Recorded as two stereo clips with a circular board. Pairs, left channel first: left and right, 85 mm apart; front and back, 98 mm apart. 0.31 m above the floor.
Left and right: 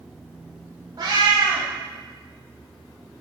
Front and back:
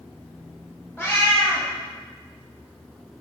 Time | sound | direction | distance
1.0 | a cat meowing | 65° right | 1.1 m